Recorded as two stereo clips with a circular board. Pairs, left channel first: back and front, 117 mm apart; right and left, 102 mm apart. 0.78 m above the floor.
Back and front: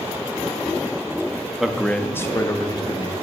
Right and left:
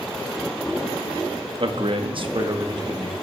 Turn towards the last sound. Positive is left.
turn(degrees=130)